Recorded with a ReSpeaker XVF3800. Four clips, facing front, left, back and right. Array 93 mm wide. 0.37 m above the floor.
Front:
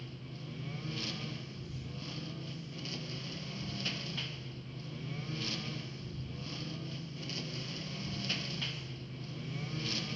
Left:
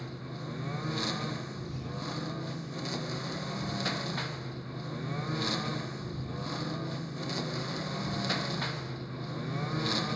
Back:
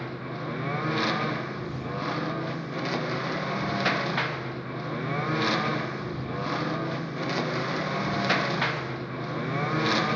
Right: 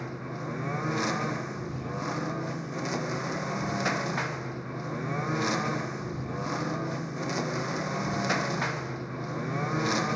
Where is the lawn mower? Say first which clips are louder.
Right 5 dB, back 14 dB; 155° right; by 10.2 s 160° right.